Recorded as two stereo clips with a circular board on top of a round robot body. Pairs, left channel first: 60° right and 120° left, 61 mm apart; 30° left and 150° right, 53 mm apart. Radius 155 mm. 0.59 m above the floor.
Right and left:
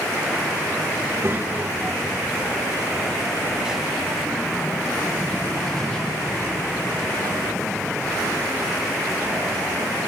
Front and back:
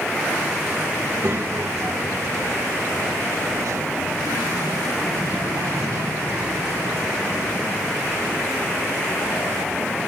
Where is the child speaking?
170° left, 2.5 m; by 10.1 s 130° right, 8 m.